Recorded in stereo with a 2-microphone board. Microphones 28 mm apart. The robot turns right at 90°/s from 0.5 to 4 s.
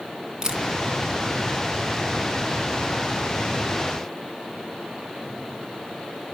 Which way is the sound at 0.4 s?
20° right (ahead or behind).